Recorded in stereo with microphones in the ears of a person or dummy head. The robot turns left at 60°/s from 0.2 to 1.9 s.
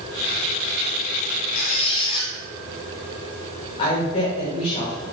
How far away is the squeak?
About 0.7 m.